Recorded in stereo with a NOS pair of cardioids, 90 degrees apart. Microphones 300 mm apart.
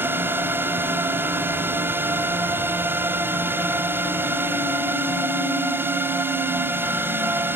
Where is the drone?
5° right.